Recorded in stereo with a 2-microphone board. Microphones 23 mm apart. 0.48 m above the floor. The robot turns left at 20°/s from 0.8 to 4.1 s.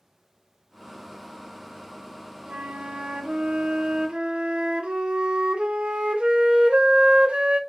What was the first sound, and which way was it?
A flute, 85° right.